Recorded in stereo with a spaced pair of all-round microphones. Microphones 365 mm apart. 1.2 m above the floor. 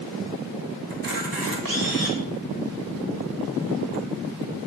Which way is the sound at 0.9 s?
65° right (ahead or behind).